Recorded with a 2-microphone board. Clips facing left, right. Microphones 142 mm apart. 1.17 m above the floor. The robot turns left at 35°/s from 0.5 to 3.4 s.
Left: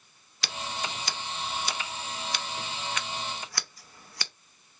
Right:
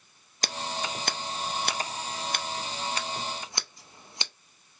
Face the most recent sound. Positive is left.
turn(degrees=-20)  # may be behind; listen again after turning